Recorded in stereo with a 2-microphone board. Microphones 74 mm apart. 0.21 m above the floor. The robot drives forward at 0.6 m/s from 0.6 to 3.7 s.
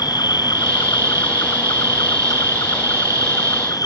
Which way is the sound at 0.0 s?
70° left (ahead or behind).